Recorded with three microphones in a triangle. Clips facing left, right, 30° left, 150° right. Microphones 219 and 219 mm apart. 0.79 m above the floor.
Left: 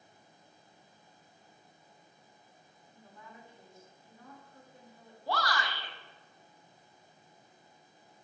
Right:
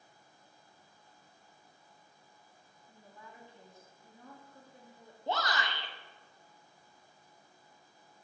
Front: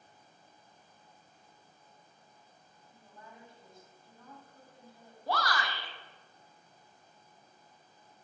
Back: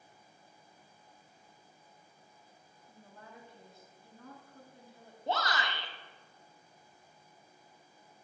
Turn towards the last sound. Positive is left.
turn(degrees=-125)